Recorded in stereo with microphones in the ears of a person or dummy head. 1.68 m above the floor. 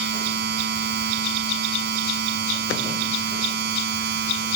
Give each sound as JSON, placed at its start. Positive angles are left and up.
{"t": 0.0, "sound": "a machine running", "side_deg": -55}